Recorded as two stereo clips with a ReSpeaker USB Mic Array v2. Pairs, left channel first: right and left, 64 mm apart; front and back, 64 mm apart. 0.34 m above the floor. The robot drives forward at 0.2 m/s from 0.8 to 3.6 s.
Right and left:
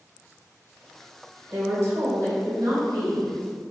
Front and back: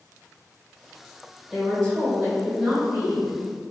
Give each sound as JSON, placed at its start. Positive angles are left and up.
{"t": 1.5, "sound": "a woman speaking", "azimuth_deg": 100, "distance_m": 1.1}